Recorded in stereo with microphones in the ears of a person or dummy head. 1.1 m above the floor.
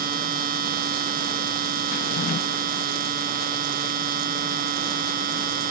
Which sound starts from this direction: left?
A drawer, at 1.9 s.